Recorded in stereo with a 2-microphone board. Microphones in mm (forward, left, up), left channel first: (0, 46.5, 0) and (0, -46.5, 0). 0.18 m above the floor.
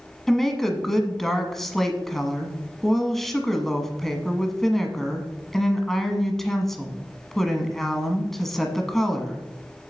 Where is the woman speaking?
5° left (ahead or behind), 1.2 m.